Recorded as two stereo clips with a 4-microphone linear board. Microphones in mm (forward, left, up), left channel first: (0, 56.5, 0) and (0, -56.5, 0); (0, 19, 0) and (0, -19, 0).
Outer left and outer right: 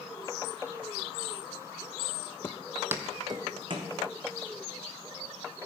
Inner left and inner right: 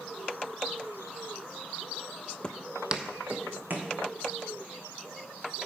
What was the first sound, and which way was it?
Footsteps, 20° left (ahead or behind).